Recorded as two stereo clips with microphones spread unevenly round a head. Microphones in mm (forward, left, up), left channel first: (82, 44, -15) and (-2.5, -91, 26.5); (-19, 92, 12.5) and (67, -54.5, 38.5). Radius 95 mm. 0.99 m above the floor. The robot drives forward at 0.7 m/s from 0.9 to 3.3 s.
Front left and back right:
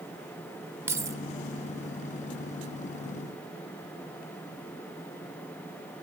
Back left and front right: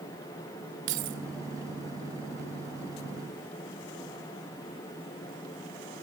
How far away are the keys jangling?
About 2 m.